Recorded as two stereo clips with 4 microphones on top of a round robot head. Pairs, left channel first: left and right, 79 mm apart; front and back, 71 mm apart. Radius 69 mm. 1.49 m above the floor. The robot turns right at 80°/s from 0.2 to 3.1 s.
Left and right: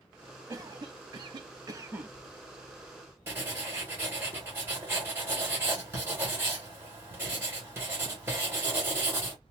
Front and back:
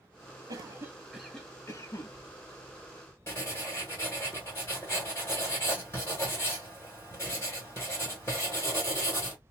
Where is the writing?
55° right, 1.3 m.